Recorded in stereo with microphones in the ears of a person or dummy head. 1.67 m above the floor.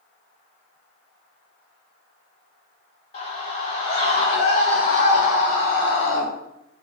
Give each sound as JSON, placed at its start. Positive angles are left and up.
{"t": 3.1, "sound": "a scream", "side_deg": 40, "distance_m": 3.0}